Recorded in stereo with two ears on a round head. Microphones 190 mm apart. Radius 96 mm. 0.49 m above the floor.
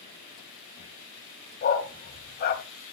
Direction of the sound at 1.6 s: 45° left (ahead or behind).